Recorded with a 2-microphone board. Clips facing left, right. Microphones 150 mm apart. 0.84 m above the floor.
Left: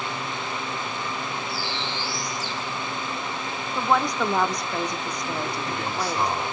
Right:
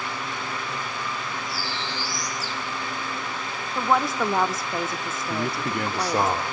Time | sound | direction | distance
1.5 | a bird | 40° right (ahead or behind) | 5 m
3.8 | a woman speaking | 5° right (ahead or behind) | 1.4 m
5.3 | a man speaking | 75° right (ahead or behind) | 3 m